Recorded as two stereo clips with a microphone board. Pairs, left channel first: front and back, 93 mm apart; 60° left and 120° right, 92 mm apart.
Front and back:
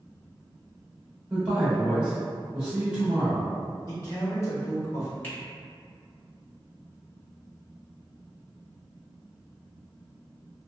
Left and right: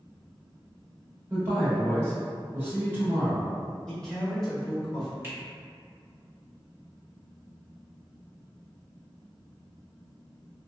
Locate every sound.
1.3 s a man speaking: 120° right, 1.4 m
3.9 s a man speaking: 20° right, 1.0 m
5.2 s a finger snap: 65° right, 1.1 m